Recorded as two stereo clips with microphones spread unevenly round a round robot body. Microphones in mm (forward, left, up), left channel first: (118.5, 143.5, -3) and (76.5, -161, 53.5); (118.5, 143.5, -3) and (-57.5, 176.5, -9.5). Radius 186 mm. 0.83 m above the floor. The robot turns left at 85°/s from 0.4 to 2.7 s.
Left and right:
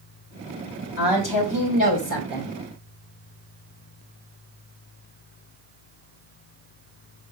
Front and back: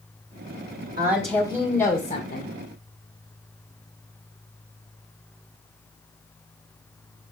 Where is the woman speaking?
140° left, 2.5 m; by 2.5 s 5° left, 2.5 m.